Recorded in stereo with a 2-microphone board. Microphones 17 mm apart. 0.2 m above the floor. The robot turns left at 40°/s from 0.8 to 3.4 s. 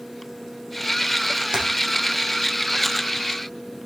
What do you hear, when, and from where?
1.5 s typing on a keyboard: 40° right (ahead or behind), 7.5 m; by 1.6 s 45° right (ahead or behind), 7.5 m